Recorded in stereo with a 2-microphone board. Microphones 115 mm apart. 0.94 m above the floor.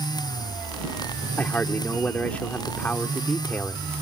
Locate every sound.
1.4 s a man speaking: 15° left (ahead or behind)